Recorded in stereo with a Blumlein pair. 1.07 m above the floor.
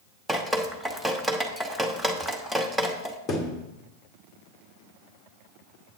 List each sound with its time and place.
0.3 s dripping: straight ahead, 1.1 m
3.3 s a thud: 25° left, 1.4 m